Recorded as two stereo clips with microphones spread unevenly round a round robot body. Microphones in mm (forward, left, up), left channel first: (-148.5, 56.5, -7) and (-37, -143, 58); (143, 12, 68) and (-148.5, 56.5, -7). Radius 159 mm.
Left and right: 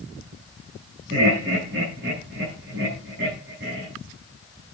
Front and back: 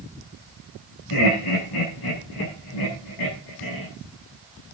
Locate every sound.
1.1 s laughter: straight ahead, 7.5 m